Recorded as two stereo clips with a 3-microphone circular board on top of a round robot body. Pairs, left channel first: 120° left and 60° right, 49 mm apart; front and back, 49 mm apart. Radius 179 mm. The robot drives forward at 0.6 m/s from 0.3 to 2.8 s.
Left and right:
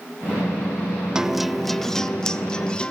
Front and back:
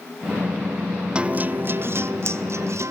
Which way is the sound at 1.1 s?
125° right.